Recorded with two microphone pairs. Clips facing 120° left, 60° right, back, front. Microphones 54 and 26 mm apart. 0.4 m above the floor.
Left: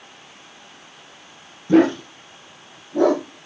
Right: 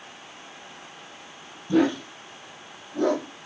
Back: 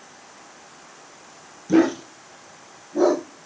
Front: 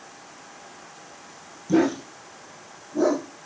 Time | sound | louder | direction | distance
1.7 | a dog barking | left 6 dB, back 3 dB | 110° left | 3 m